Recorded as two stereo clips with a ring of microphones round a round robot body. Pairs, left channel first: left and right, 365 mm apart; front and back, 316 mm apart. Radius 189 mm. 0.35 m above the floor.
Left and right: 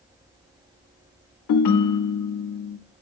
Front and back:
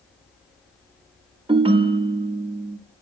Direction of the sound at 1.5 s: 110° left.